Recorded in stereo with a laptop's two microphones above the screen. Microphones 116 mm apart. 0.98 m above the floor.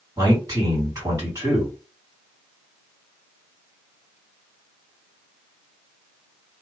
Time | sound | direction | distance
0.2 | a man speaking | 30° right (ahead or behind) | 2 m